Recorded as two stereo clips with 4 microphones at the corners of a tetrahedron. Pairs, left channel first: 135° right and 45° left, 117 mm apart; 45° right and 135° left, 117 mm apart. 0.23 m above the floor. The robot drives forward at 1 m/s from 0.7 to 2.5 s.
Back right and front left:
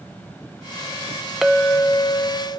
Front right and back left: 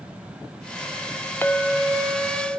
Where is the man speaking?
I don't hear a man speaking.